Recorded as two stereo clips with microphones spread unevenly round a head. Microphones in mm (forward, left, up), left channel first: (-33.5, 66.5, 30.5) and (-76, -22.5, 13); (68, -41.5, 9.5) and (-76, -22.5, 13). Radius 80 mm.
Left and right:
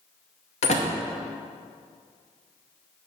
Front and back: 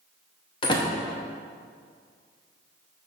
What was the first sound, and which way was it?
A door slam, 60° left.